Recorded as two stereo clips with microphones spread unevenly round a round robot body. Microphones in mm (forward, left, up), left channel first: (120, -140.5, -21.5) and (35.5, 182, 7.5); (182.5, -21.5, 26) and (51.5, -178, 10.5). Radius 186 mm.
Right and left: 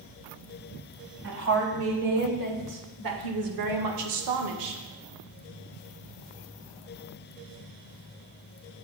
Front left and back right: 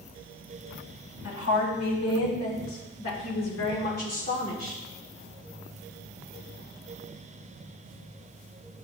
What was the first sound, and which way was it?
A woman speaking, 65° left.